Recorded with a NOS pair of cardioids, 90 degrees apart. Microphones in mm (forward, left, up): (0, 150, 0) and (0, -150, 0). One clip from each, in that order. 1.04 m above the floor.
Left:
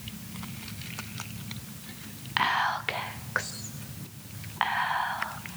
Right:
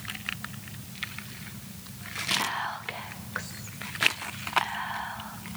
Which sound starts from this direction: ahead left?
Whispering, at 2.4 s.